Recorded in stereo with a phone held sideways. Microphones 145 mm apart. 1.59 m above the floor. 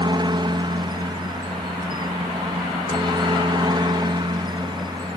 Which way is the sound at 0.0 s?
30° right (ahead or behind).